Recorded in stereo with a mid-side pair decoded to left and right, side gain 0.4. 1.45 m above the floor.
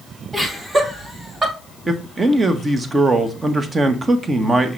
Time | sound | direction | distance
0.3 | laughter | 25° right | 4.5 m
1.9 | a man speaking | 35° right | 1.7 m